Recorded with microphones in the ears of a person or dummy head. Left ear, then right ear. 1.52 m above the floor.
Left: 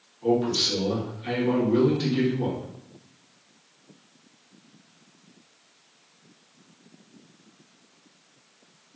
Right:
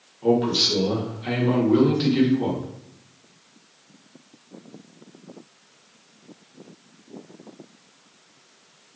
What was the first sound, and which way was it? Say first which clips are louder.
A man speaking: right 3 dB; 5° right (ahead or behind).